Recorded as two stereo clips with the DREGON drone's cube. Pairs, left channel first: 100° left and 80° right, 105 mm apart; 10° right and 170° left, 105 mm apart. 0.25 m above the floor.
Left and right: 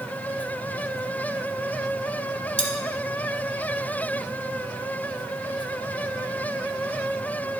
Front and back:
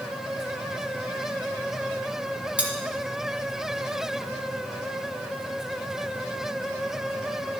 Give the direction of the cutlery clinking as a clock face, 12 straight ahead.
9 o'clock.